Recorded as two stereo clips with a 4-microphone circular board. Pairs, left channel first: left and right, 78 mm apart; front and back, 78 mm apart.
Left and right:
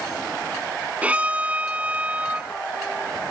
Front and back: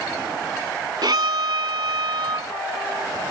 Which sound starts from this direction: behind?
A violin, at 1.0 s.